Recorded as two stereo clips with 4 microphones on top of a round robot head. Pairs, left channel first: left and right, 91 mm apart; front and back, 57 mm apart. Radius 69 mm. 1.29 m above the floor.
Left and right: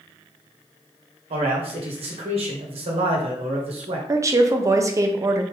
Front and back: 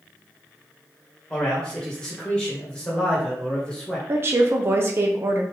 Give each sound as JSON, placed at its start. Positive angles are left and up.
{"t": 1.3, "sound": "a man speaking", "azimuth_deg": -80, "distance_m": 1.5}
{"t": 4.1, "sound": "a woman speaking", "azimuth_deg": -140, "distance_m": 0.9}